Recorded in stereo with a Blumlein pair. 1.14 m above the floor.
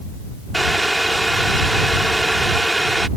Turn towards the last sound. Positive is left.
turn(degrees=-5)